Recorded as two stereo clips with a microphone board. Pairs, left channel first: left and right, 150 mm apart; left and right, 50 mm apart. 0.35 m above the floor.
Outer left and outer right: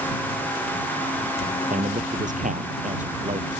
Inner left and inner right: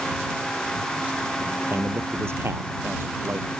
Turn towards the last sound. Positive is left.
turn(degrees=-55)  # may be behind; listen again after turning